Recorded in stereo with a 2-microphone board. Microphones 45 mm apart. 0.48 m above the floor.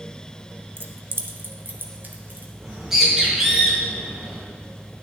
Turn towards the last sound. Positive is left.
turn(degrees=-10)  # may be behind; listen again after turning